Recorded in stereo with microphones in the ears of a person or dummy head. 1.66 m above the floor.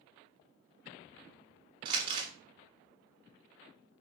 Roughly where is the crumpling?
Right.